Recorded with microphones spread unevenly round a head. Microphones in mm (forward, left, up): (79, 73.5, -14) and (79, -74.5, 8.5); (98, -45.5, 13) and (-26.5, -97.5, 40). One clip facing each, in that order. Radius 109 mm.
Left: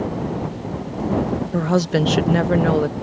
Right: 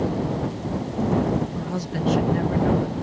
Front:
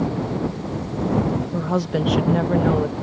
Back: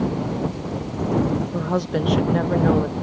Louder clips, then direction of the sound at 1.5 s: Left 10 dB, front 1 dB; 110° left.